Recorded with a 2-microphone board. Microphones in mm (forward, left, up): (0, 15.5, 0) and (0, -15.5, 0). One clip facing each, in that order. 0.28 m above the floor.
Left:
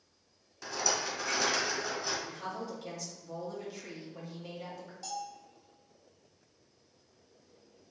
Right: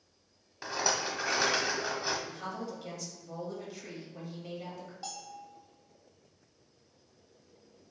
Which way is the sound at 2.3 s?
Centre (ahead or behind).